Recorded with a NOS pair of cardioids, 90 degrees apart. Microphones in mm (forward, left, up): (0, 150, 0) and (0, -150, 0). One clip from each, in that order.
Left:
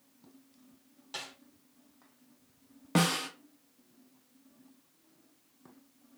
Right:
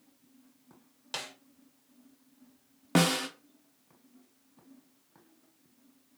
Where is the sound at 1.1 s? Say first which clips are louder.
Right 3 dB; 45° right, 1.0 m.